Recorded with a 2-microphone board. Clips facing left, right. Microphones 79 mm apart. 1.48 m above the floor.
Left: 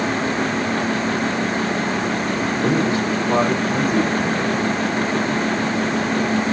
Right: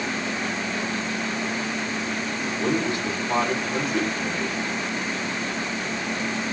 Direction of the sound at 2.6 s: 35° left (ahead or behind).